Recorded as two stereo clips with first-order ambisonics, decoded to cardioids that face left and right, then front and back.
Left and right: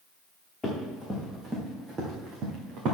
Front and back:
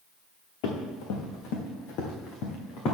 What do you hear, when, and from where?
0.6 s running footsteps: 5° left, 3 m; by 3.0 s 45° right, 3 m